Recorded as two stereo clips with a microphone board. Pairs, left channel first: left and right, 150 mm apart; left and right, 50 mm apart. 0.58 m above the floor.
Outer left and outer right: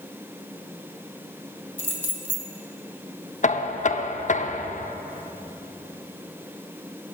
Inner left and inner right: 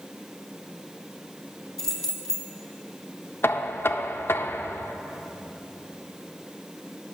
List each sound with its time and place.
1.8 s keys jangling: 10° left (ahead or behind), 1.7 m
3.4 s knocking: 55° left (ahead or behind), 0.6 m